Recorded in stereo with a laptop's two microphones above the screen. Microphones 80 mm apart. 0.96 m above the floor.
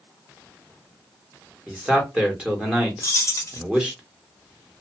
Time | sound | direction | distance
1.7 | a man speaking | 10° right (ahead or behind) | 1.4 m
3.0 | keys jangling | 45° left (ahead or behind) | 0.5 m